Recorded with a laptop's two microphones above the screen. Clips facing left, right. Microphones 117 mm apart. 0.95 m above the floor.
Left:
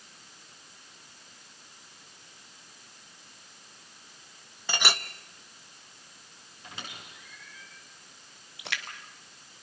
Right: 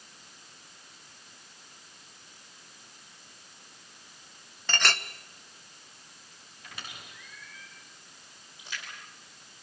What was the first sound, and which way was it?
A clink, 10° left (ahead or behind).